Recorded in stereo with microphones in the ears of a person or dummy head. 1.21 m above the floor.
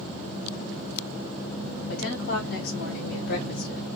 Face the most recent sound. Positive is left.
turn(degrees=50)  # may be behind; listen again after turning